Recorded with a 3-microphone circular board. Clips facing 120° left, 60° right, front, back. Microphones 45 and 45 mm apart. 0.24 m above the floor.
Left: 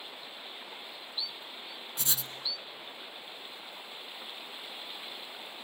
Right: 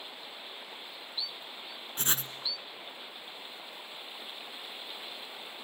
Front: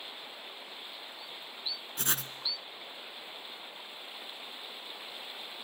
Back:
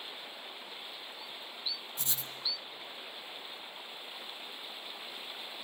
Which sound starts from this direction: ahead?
Writing, at 2.0 s.